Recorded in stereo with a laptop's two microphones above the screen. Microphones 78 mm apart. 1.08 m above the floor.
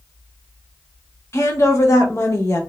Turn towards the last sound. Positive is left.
turn(degrees=35)  # may be behind; listen again after turning